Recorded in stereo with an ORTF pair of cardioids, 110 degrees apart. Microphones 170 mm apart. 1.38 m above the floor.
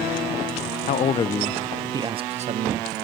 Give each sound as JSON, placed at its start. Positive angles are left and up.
{"t": 0.9, "sound": "a man speaking", "azimuth_deg": 50, "distance_m": 0.7}